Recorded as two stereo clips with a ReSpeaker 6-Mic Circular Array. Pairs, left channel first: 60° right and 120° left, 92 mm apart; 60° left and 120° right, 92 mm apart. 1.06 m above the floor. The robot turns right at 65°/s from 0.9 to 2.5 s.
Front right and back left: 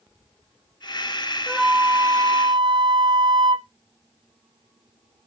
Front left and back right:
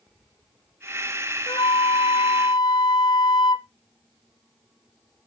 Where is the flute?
25° left, 1.0 m; by 3.7 s 95° left, 1.0 m.